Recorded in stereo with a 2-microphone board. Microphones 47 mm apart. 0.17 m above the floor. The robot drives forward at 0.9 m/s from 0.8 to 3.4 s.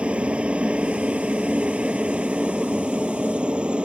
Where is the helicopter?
25° right (ahead or behind).